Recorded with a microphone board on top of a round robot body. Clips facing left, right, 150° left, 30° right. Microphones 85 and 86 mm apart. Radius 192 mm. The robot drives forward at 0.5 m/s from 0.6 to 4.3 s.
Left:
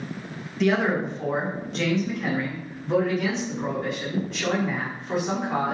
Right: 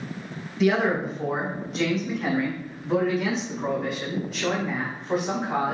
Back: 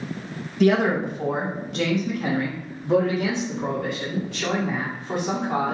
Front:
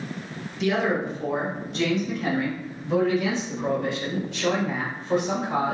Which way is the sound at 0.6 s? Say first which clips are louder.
Even, back 5 dB; 175° right.